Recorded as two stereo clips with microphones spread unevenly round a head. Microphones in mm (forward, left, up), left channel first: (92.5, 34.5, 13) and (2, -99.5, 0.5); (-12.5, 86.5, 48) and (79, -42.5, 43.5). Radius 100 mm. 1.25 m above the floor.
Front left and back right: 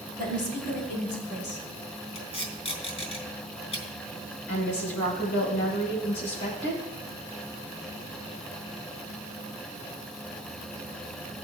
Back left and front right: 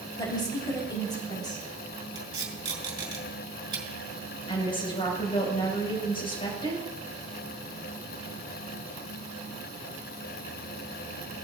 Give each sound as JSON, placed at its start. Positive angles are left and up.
{"t": 0.2, "sound": "a woman speaking", "azimuth_deg": 60, "distance_m": 4.0}
{"t": 2.1, "sound": "tape being pulled", "azimuth_deg": 10, "distance_m": 4.0}
{"t": 4.5, "sound": "a woman speaking", "azimuth_deg": 70, "distance_m": 4.5}